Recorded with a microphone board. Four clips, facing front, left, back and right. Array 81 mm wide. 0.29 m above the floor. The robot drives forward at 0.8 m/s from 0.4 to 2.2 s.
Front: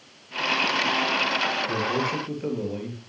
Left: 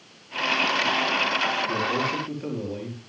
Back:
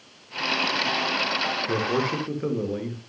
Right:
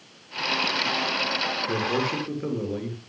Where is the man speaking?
155° right, 5 m; by 3.0 s 160° right, 5.5 m.